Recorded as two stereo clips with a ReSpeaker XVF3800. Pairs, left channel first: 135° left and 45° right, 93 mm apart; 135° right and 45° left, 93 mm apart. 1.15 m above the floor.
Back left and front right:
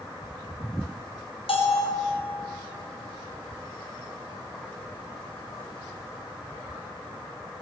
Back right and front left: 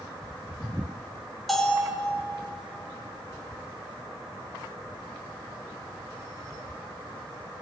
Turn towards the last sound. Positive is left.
turn(degrees=135)